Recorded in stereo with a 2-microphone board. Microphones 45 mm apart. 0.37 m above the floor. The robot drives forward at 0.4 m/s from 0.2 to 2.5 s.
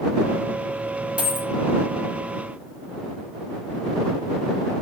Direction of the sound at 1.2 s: 30° right (ahead or behind).